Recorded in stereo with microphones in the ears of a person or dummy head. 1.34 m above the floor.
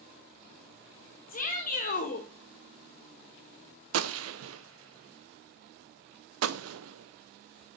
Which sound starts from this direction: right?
A gunshot, at 3.9 s.